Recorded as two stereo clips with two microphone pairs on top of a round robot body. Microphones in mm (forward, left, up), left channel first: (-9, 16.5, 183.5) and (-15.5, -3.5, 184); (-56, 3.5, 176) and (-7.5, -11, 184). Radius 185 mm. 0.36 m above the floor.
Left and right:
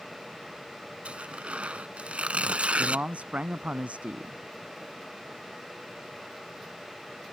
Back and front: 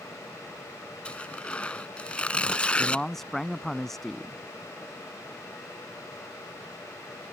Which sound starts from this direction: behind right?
Tearing paper, at 1.1 s.